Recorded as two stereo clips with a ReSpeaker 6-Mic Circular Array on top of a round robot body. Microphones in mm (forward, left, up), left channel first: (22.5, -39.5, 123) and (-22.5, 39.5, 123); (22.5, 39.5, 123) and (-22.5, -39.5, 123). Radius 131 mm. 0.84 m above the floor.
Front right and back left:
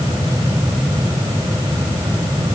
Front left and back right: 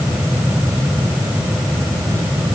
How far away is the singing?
I don't hear singing.